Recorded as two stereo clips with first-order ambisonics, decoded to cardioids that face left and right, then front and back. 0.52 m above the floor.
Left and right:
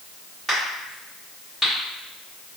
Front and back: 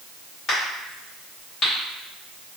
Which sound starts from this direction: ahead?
A crack, at 0.5 s.